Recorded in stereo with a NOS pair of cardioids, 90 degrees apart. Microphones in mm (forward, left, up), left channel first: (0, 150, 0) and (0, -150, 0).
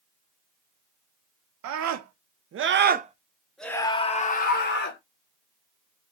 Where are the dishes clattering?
I don't hear dishes clattering.